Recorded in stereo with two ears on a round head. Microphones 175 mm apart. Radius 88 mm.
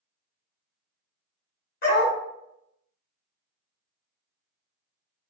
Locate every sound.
1.8 s a dog barking: 45° left (ahead or behind), 1.0 m